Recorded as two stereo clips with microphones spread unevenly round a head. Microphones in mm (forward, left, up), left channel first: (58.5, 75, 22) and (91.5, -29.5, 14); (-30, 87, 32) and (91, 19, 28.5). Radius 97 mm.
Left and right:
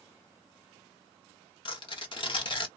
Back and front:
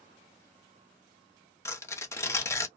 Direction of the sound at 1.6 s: 85° left.